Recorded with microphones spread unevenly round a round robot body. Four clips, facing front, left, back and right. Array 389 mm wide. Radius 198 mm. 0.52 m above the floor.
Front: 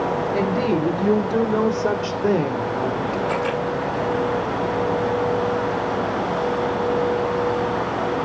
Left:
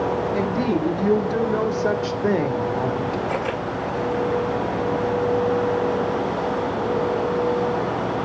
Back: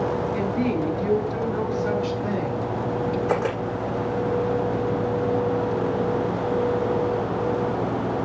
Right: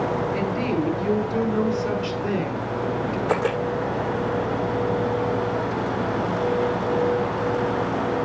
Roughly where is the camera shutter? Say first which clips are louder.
Right 2 dB, front 1 dB; behind right.